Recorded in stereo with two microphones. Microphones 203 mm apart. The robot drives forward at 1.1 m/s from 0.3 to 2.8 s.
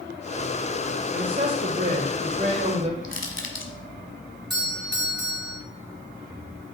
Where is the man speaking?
40° right (ahead or behind), 1.6 m; by 2.9 s 30° right (ahead or behind), 2 m.